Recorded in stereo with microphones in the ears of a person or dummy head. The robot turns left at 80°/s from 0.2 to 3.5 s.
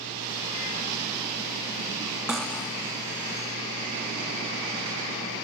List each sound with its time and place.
2.3 s cutlery clinking: centre (ahead or behind), 0.5 m; by 2.7 s 15° left (ahead or behind), 0.5 m